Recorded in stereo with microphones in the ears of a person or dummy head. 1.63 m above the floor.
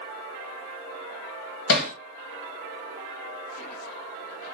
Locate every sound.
1.7 s hammering: 70° left (ahead or behind), 1.4 m